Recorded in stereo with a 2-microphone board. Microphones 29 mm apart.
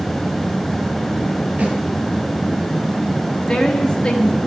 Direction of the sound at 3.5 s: 35° left (ahead or behind).